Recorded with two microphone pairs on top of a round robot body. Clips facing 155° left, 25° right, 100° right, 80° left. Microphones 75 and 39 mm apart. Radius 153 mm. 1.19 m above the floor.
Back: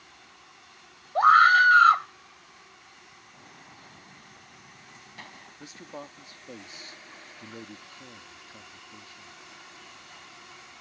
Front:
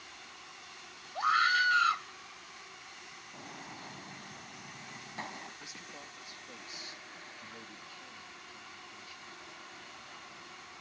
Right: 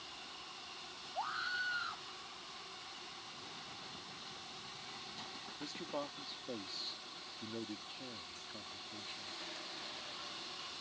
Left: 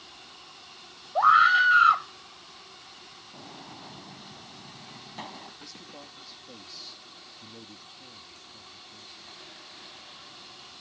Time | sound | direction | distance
1.1 | a scream | 110° left | ?
3.3 | a gunshot | 40° left | ?
5.6 | a man speaking | 155° right | ?